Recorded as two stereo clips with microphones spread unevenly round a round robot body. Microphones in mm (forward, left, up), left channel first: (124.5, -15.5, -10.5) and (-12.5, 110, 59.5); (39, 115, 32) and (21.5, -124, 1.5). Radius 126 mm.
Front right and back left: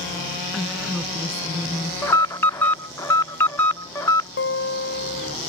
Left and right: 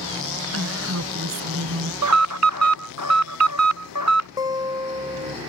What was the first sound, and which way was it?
A woman speaking, 135° right.